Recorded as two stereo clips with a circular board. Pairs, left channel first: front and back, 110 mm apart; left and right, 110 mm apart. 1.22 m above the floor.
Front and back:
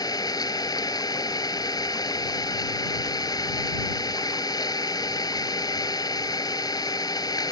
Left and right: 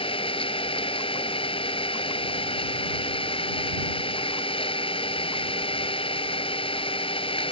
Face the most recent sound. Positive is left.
turn(degrees=55)